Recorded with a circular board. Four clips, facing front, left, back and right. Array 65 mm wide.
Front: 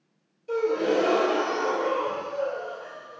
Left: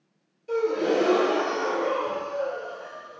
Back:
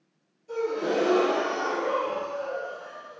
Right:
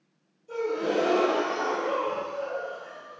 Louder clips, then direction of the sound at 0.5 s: Left 4 dB, front 3 dB; 55° left.